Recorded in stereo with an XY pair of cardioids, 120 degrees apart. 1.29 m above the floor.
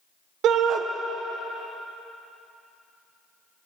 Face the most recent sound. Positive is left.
turn(degrees=-65)